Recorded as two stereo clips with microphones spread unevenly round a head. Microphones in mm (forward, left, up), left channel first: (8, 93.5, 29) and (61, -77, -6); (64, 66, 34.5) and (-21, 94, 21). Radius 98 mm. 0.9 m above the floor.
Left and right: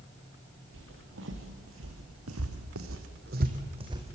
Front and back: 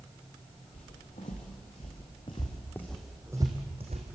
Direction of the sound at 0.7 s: 55° right.